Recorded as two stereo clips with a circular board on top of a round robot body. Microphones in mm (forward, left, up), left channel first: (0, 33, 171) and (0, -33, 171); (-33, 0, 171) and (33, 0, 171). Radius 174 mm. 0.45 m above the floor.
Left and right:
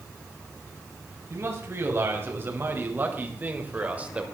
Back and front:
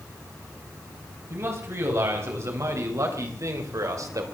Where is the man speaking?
45° right, 4.5 m; by 4.2 s 20° right, 3 m.